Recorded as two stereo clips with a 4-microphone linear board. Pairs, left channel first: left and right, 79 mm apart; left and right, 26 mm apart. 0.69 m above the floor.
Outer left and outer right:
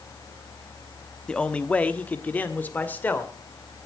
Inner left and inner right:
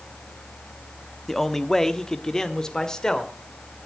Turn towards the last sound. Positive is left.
turn(degrees=25)  # may be behind; listen again after turning